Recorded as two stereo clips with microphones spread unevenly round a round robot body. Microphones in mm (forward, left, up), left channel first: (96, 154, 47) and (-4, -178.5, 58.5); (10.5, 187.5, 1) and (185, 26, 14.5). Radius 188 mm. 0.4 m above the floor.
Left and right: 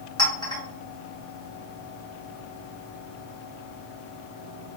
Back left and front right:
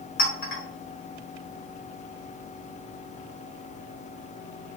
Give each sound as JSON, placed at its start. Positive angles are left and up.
{"t": 0.2, "sound": "a clink", "azimuth_deg": 150, "distance_m": 1.2}